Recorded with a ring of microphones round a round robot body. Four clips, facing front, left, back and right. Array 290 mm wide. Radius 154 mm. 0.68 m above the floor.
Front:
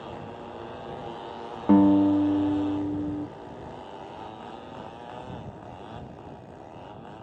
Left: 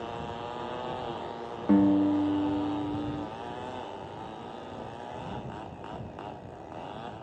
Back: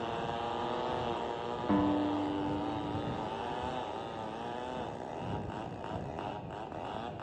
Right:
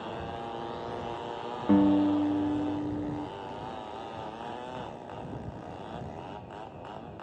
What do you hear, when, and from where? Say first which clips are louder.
1.7 s a guitar: even, front 12 dB; 5° left